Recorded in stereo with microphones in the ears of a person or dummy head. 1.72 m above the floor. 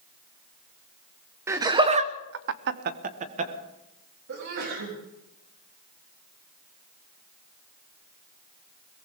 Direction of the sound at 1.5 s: 20° right (ahead or behind).